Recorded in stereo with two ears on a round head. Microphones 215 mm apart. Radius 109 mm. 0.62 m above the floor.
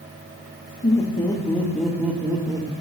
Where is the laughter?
30° left (ahead or behind), 1.7 m; by 2.7 s 20° right (ahead or behind), 2 m.